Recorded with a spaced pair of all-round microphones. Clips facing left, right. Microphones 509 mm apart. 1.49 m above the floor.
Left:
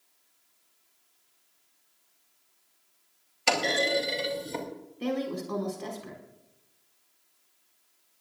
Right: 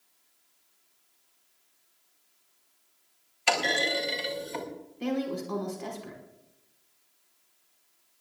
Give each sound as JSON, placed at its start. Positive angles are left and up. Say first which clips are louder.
{"t": 3.5, "sound": "a clunk", "louder": "left 2 dB", "side_deg": 60, "distance_m": 3.0}
{"t": 5.0, "sound": "a woman speaking", "louder": "right 1 dB", "side_deg": 0, "distance_m": 5.0}